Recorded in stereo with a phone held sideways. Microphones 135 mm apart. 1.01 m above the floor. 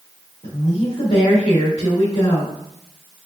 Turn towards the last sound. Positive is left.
turn(degrees=70)  # may be behind; listen again after turning